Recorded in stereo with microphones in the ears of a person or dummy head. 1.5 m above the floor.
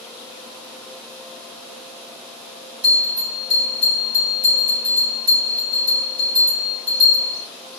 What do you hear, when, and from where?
2.8 s a bell: 50° right (ahead or behind), 3 m